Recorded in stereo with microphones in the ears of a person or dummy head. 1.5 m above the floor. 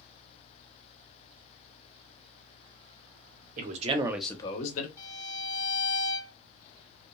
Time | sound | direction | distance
3.6 | a man speaking | 50° right (ahead or behind) | 1.0 m
5.0 | a violin | 20° left (ahead or behind) | 0.7 m